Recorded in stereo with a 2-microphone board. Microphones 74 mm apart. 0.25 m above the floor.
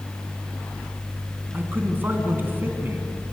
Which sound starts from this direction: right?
A man speaking, at 1.5 s.